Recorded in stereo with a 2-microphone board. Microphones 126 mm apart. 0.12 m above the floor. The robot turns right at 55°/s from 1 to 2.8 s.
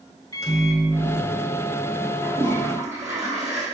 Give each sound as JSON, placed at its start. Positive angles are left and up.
{"t": 0.3, "sound": "a microwave", "azimuth_deg": 70, "distance_m": 1.0}
{"t": 2.2, "sound": "a toilet flushing", "azimuth_deg": -140, "distance_m": 2.0}